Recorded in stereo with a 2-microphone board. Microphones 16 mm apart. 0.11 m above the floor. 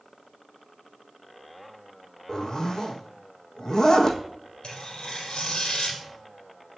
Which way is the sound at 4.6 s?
65° left (ahead or behind).